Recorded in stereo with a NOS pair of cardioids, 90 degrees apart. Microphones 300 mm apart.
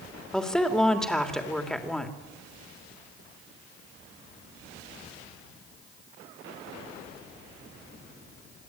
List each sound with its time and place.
0.3 s a woman speaking: straight ahead, 3 m